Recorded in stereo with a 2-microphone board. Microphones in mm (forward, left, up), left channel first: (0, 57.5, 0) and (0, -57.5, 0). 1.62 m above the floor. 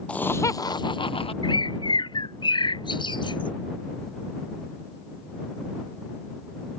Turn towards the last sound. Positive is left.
turn(degrees=40)  # may be behind; listen again after turning